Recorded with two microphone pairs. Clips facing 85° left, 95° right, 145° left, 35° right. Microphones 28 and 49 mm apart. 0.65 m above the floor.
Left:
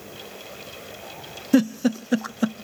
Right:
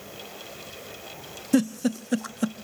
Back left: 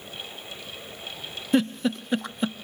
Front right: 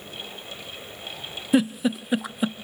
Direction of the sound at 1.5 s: 35° left.